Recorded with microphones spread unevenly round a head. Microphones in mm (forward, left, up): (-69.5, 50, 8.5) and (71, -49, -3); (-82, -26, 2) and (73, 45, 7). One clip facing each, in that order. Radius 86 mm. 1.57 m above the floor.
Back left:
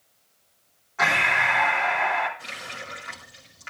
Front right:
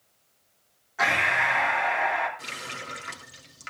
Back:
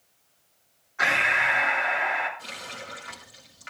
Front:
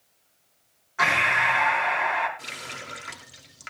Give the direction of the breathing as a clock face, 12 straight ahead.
10 o'clock.